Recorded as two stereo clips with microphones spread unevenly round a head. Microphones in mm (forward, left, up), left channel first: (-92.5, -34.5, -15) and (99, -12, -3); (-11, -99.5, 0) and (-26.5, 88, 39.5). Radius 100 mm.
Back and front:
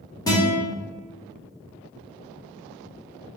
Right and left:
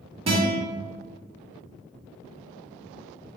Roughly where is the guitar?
Behind left.